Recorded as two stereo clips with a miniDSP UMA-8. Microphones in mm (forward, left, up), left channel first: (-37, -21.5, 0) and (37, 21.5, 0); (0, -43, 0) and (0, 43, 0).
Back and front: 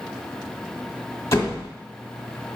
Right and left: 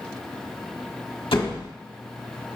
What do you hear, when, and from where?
1.3 s a door slam: 95° right, 1.0 m